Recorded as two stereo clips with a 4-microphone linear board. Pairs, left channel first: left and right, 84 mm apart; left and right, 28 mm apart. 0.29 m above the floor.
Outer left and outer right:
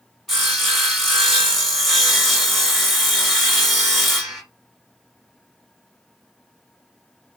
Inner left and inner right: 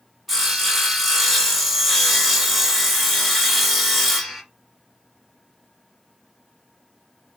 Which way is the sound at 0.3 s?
5° left (ahead or behind).